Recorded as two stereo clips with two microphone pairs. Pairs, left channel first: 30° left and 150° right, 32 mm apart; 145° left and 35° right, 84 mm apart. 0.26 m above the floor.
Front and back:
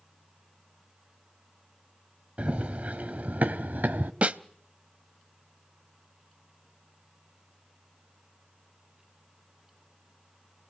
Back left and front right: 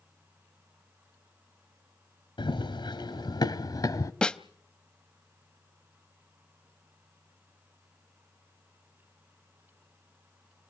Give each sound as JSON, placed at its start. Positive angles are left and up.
{"t": 2.4, "sound": "running footsteps", "azimuth_deg": 160, "distance_m": 1.9}
{"t": 4.2, "sound": "a snare drum", "azimuth_deg": -140, "distance_m": 0.6}